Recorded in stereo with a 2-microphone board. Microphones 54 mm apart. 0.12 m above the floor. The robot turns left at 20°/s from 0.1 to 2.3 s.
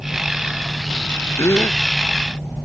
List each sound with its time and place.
1.4 s a gasp: 55° left (ahead or behind); by 1.8 s 50° left (ahead or behind)